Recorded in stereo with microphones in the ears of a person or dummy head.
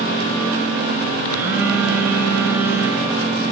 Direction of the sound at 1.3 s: 10° right (ahead or behind).